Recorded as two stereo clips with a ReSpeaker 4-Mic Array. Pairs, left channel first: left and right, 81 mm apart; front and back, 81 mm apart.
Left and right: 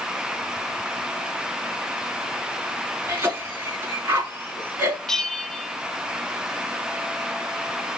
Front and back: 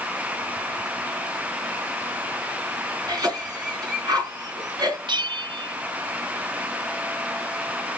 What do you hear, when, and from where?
3.1 s a cough: 145° right, 5.5 m
5.1 s a bell: 175° left, 0.7 m